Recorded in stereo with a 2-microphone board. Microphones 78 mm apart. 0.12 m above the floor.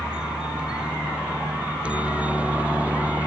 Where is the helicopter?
10° right (ahead or behind); by 3.3 s 20° right (ahead or behind).